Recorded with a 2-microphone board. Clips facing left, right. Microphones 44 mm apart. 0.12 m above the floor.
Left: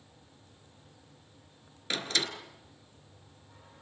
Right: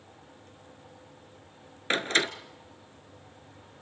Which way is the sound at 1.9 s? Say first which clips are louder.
Right 6 dB; 40° right (ahead or behind).